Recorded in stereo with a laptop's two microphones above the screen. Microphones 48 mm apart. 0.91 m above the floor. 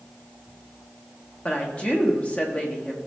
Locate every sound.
1.4 s a woman speaking: 25° left (ahead or behind), 1.2 m